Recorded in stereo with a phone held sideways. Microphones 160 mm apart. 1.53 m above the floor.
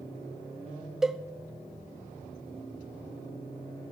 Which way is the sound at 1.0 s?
5° right (ahead or behind).